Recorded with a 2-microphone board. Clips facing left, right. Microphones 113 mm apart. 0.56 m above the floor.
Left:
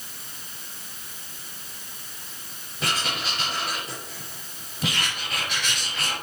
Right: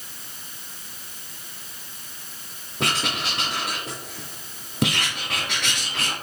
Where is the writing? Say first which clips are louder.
Right 2 dB; 75° right (ahead or behind), 3 m.